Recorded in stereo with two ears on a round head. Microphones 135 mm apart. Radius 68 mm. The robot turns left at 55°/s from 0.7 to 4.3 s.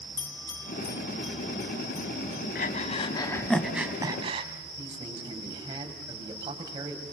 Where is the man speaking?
25° right (ahead or behind), 5.5 m.